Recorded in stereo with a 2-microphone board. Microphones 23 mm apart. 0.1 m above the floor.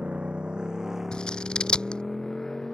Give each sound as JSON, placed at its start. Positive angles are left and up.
{"t": 0.0, "sound": "a motorcycle", "side_deg": -65}
{"t": 1.1, "sound": "scissors", "side_deg": 40}